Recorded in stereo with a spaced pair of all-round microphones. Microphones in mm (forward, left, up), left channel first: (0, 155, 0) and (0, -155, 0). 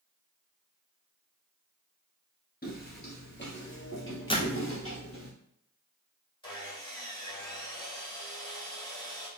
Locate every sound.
2.6 s footsteps: 30° left (ahead or behind), 1.5 m; by 5.3 s 45° left (ahead or behind), 2.5 m
4.3 s a door slam: 15° left (ahead or behind), 0.8 m
6.4 s sawing: 15° left (ahead or behind), 1.6 m